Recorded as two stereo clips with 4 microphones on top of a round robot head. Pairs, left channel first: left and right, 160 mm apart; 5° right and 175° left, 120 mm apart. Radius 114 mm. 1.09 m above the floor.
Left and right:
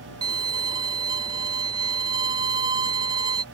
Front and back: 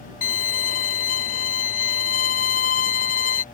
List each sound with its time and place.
0.2 s a violin: 20° right